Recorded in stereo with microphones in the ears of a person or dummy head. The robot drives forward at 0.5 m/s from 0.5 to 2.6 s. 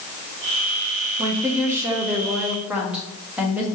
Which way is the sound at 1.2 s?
10° right (ahead or behind).